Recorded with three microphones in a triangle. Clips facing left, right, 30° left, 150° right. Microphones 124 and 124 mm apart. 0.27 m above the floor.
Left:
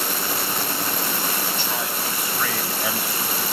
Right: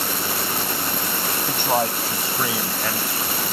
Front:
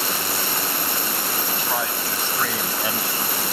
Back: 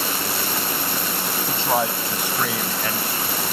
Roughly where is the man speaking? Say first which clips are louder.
Right 6 dB, back 7 dB; right.